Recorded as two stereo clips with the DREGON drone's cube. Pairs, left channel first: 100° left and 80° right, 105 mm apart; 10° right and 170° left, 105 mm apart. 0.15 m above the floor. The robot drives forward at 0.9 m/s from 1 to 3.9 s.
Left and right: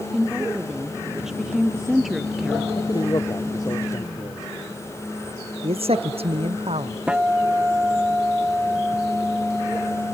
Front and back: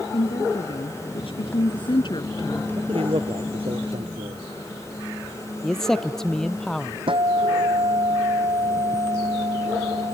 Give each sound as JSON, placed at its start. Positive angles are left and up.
{"t": 0.1, "sound": "a woman speaking", "azimuth_deg": 5}
{"t": 2.8, "sound": "a man speaking", "azimuth_deg": 145}
{"t": 5.6, "sound": "a man speaking", "azimuth_deg": -95}
{"t": 7.1, "sound": "a guitar", "azimuth_deg": -160}